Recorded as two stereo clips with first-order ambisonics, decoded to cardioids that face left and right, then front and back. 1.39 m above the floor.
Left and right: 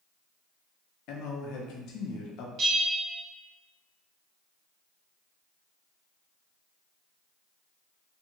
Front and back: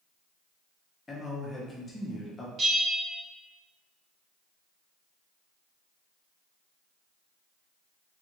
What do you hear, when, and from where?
1.1 s a man speaking: 75° left, 0.6 m
2.6 s a bell: 125° right, 0.8 m